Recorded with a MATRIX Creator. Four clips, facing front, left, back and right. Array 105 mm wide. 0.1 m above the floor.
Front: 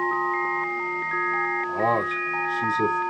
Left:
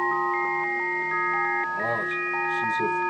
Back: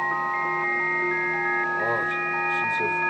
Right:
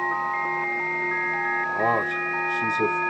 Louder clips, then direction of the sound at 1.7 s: Right 4 dB, front 2 dB; 45° right.